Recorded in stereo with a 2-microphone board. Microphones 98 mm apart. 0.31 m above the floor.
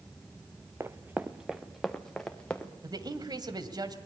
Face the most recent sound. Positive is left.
turn(degrees=-45)  # may be behind; listen again after turning